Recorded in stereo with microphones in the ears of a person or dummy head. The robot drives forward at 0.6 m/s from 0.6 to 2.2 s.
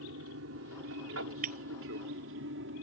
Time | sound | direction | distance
0.0 | an aircraft | 65° right (ahead or behind) | ?
1.4 | breaking glass | 45° right (ahead or behind) | ?